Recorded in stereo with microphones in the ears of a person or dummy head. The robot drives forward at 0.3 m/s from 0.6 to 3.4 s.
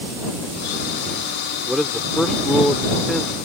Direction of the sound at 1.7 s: Centre (ahead or behind).